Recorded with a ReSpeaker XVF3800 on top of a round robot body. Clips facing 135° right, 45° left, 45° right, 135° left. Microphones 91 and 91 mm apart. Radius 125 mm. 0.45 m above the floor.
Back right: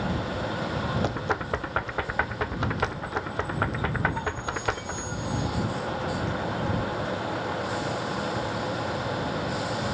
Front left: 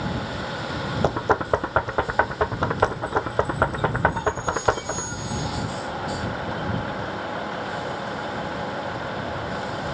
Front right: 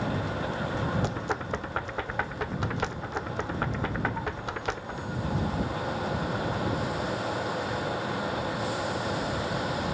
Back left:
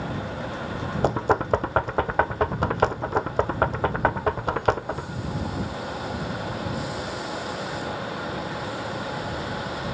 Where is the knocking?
95° left.